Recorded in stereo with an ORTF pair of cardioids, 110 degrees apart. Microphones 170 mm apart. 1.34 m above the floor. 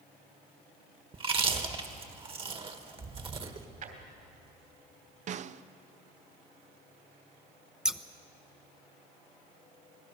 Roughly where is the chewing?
Ahead right.